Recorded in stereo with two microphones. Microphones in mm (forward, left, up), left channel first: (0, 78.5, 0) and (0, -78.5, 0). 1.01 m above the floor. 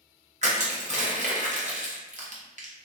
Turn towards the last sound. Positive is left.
turn(degrees=-50)  # may be behind; listen again after turning